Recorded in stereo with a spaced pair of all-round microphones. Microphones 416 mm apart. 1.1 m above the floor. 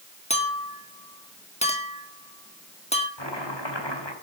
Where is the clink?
15° left (ahead or behind), 1.7 m.